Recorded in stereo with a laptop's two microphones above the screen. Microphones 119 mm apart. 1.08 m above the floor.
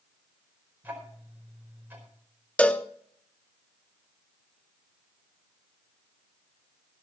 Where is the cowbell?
10° left (ahead or behind), 0.6 m.